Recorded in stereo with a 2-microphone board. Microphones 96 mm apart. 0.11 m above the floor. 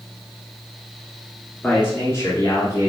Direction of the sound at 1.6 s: 20° left (ahead or behind).